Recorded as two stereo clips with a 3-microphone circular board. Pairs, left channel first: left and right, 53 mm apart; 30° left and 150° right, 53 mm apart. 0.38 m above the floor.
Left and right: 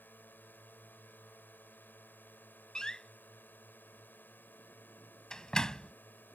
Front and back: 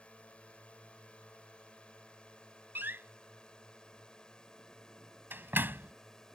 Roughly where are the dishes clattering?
No dishes clattering in this recording.